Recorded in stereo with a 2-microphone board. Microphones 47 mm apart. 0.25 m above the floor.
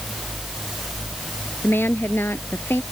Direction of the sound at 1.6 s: 55° left (ahead or behind).